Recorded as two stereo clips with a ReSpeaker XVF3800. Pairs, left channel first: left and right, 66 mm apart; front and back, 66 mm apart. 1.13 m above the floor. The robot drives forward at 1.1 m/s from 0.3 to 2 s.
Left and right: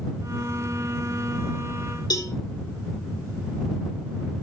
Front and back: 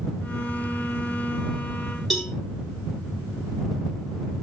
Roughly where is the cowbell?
Left.